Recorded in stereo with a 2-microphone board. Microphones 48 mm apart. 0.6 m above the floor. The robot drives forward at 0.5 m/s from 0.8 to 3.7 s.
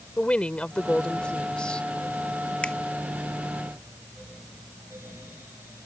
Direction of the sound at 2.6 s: 20° left (ahead or behind).